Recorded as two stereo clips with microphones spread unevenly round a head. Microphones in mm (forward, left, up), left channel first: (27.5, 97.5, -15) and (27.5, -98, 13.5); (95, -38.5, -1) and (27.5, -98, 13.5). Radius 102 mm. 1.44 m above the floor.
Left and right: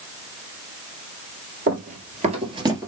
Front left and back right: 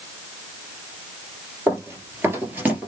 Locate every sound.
1.7 s running footsteps: 100° right, 2 m; by 2.9 s 120° right, 1.5 m